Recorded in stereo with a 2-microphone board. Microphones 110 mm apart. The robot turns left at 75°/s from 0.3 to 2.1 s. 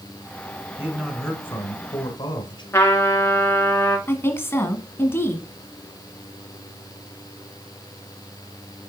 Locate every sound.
0.8 s a man speaking: 150° right, 1.7 m; by 2.6 s 110° left, 1.7 m
2.7 s a trumpet: 20° left (ahead or behind), 1.8 m
4.1 s a woman speaking: 20° left (ahead or behind), 1.3 m